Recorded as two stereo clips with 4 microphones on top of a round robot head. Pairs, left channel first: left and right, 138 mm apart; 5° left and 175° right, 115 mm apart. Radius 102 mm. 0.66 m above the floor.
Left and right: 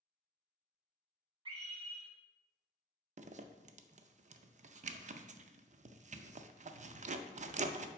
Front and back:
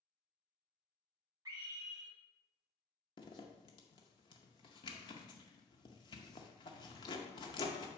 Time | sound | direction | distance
1.4 | a scream | 125° right | 1.7 m
3.2 | a zipper | 55° right | 0.5 m